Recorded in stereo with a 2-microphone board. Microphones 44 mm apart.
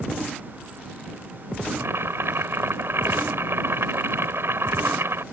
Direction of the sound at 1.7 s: 70° right (ahead or behind).